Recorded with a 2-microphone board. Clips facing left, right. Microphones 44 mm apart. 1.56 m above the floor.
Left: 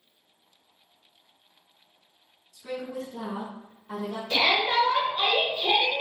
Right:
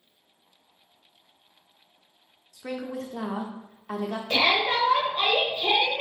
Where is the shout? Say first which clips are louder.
Even; 30° right (ahead or behind), 1.4 m.